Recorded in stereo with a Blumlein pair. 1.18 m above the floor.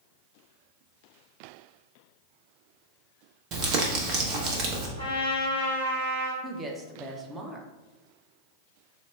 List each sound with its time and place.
3.5 s crumpling: 35° right, 0.8 m
5.0 s a trumpet: 65° right, 1.1 m
6.4 s a woman speaking: 15° right, 0.7 m